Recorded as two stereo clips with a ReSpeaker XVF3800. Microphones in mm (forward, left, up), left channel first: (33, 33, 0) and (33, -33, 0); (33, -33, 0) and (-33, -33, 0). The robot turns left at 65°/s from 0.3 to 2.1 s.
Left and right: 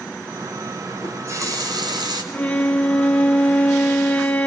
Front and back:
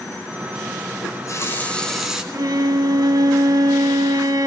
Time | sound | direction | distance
1.0 | a running tap | 30° right | 2.5 m
2.3 | a violin | 160° left | 1.1 m